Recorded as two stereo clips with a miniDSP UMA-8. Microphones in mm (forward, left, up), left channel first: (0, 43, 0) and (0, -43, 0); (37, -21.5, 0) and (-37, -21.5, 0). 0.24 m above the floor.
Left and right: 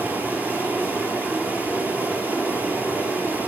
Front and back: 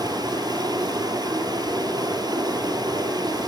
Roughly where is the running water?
Behind.